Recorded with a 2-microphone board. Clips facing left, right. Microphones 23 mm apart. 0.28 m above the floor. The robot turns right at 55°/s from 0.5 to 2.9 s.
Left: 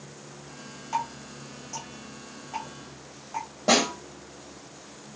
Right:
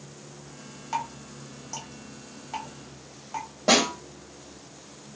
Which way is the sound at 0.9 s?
20° right (ahead or behind).